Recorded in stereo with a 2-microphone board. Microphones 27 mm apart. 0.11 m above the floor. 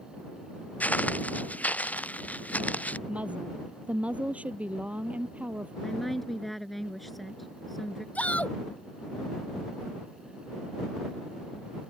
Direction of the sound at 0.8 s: 75° left (ahead or behind).